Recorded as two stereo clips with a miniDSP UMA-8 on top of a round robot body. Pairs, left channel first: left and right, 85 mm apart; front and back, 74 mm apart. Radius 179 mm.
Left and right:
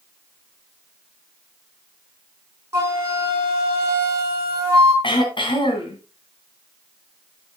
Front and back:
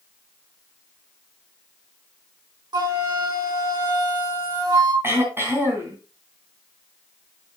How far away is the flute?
About 4 m.